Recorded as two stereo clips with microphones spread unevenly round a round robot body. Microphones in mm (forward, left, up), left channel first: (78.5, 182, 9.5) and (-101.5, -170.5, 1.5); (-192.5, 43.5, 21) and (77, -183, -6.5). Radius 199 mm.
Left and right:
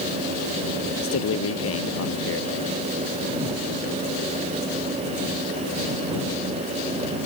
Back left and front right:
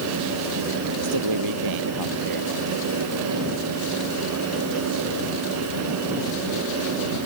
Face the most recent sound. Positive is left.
turn(degrees=5)